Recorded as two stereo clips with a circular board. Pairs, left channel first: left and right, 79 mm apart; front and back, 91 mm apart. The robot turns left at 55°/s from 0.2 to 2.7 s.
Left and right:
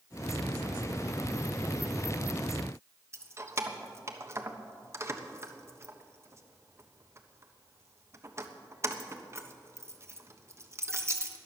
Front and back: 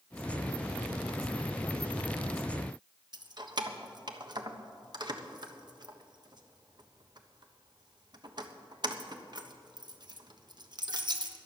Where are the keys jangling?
145° right, 1.2 m.